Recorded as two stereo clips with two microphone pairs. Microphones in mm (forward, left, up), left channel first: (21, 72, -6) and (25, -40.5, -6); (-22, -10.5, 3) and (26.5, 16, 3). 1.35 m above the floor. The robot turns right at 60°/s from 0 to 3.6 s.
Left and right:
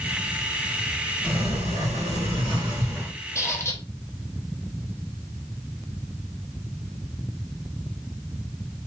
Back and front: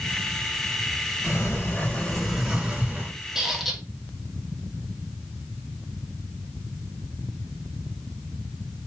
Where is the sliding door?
125° right, 1.6 m; by 3.1 s 10° right, 1.6 m.